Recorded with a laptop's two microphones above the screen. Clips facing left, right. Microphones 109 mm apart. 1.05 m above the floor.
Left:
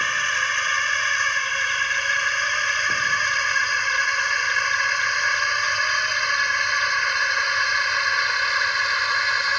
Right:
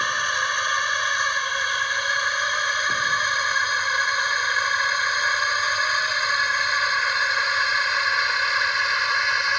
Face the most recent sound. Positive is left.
turn(degrees=0)  # may be behind; listen again after turning